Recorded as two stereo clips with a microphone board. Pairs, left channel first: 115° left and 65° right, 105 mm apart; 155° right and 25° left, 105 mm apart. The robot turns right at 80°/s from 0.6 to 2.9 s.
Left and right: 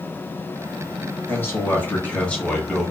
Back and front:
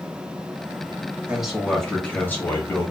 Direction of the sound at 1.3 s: 90° left.